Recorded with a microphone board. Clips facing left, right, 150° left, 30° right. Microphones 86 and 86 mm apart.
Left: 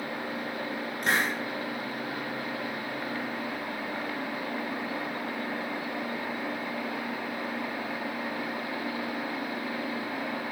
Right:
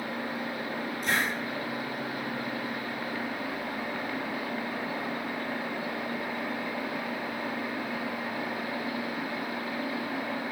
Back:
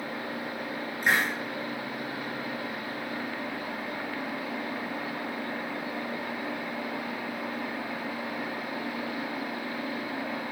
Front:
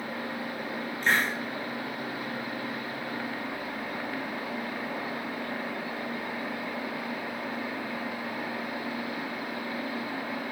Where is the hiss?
75° left, 6 m.